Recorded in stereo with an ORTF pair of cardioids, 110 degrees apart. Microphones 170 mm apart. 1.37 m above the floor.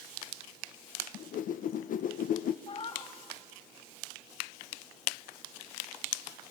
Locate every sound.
1.1 s a whoosh: 55° left, 0.7 m
2.7 s a cat meowing: 35° left, 2.5 m